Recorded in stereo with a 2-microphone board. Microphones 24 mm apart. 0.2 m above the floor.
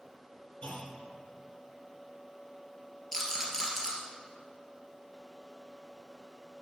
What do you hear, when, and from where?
0.6 s a clunk: 65° left (ahead or behind), 1.8 m
3.1 s a rattle: 15° left (ahead or behind), 2.5 m